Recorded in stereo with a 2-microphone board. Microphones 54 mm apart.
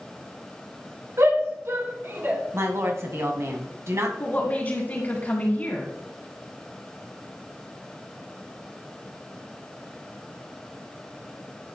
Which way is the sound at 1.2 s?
60° right (ahead or behind).